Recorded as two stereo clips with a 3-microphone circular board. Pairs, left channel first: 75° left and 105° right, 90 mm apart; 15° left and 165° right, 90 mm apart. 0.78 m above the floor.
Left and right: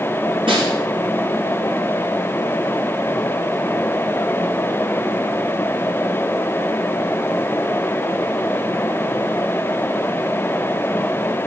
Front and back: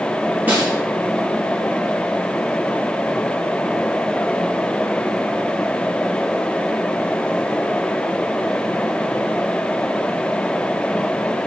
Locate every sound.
0.5 s a snare drum: 90° right, 4.5 m